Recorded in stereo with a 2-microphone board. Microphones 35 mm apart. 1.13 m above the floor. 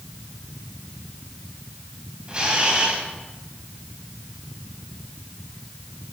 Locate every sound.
2.3 s a camera shutter: 30° right (ahead or behind), 3.5 m